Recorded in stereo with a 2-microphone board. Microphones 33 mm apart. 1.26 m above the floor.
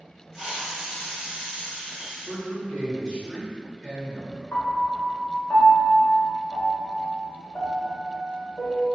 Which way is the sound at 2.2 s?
25° left (ahead or behind).